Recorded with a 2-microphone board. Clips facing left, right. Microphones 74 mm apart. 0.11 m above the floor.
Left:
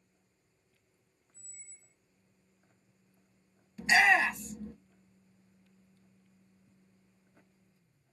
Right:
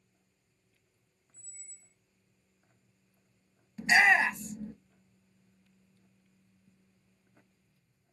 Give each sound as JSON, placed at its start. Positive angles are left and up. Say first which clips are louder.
{"t": 1.3, "sound": "a squeak", "louder": "even", "side_deg": 45, "distance_m": 0.9}
{"t": 3.8, "sound": "a shout", "louder": "right 1 dB", "side_deg": -25, "distance_m": 1.9}